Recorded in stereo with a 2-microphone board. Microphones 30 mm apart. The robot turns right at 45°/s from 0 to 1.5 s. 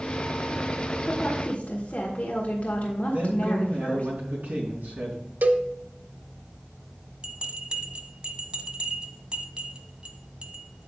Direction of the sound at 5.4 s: 70° right (ahead or behind).